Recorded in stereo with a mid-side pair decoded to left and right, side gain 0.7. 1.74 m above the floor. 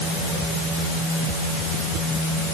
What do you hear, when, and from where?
Only background noise.